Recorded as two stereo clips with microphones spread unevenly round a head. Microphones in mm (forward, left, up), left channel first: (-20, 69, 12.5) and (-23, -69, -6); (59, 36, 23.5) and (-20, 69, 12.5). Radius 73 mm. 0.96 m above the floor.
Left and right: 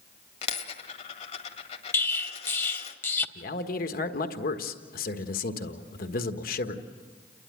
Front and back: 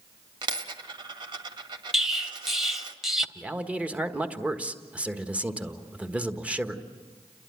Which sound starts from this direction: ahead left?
An explosion, at 1.9 s.